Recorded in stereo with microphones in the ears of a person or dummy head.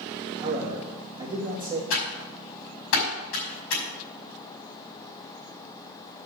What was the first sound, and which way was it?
A man speaking, 25° right (ahead or behind).